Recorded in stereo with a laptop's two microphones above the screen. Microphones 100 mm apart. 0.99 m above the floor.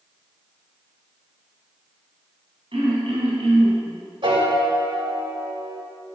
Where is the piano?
55° right (ahead or behind), 1.8 m.